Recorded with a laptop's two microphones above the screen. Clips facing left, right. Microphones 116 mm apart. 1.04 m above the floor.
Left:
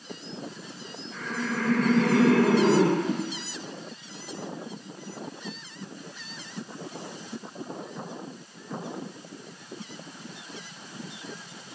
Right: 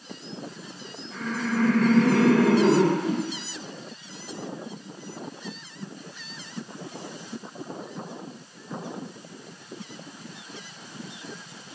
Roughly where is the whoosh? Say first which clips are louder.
Right 1 dB; centre.